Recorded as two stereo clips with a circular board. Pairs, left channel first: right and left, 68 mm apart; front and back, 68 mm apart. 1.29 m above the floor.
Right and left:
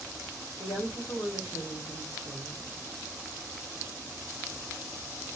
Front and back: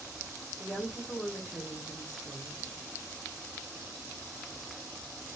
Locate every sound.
0.6 s a woman speaking: 90° right, 3.5 m